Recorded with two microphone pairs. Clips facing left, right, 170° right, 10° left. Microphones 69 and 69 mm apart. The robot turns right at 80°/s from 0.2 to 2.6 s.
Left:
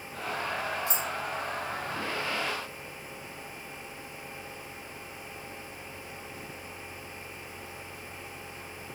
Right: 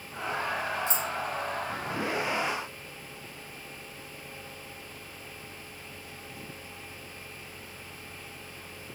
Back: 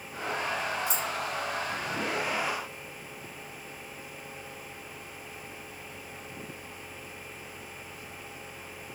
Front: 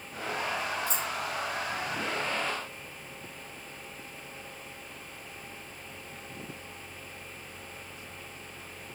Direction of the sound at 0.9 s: 115° right.